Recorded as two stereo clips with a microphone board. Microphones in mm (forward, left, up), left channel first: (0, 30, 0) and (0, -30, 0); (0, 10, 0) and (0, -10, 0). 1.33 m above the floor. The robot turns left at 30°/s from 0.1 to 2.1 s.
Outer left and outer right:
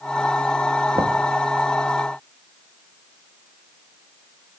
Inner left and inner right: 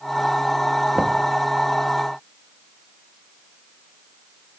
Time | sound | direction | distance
0.9 | knocking | 70° right (ahead or behind) | 1.6 m